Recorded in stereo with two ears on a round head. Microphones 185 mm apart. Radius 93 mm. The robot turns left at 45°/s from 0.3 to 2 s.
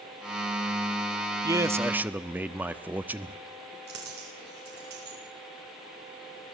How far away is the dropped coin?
About 7 m.